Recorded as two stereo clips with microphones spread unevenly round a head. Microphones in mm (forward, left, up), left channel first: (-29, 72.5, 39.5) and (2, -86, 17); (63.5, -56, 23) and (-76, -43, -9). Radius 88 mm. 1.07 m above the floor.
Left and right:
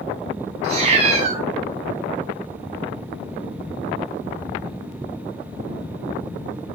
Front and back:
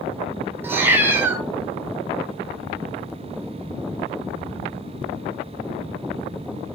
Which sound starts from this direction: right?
A cat meowing, at 0.6 s.